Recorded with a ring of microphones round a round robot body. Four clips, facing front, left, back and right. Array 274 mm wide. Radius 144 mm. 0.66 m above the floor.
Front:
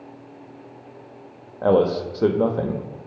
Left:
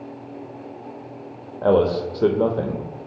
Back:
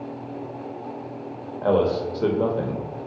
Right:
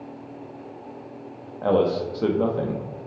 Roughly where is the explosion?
No explosion in this recording.